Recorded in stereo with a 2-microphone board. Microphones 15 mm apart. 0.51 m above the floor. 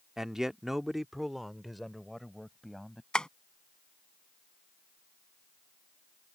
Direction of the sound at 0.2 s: 35° right (ahead or behind).